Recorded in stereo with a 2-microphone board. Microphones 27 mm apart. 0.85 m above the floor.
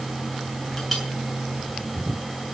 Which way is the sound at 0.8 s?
10° left (ahead or behind).